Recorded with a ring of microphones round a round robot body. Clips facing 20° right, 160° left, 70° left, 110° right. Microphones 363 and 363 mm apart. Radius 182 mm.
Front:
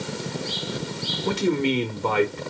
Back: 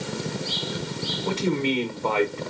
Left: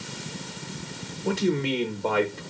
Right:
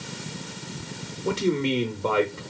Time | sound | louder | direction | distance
1.2 | a man speaking | front 2 dB, right 1 dB | 45° right | 0.8 m